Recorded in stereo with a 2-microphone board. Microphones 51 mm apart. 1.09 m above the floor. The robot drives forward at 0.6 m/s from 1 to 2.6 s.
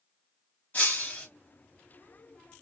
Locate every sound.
0.7 s breaking glass: 35° left (ahead or behind), 2.5 m; by 1.3 s 30° left (ahead or behind), 3 m